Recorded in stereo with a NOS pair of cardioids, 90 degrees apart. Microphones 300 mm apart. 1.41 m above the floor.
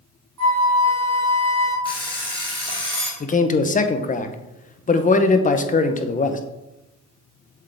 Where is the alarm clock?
15° left, 2.5 m.